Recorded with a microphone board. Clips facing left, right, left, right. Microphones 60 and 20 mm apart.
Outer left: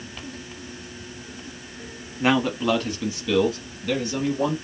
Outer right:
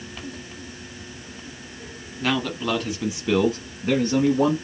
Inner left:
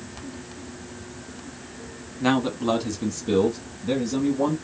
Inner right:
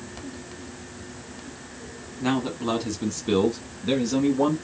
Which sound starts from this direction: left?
A man speaking, at 2.2 s.